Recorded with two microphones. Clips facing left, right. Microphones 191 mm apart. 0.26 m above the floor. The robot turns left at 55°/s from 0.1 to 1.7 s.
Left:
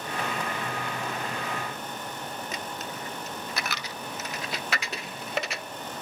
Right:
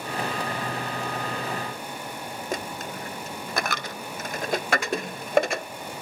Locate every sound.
2.5 s a dropped coin: 50° right (ahead or behind), 0.6 m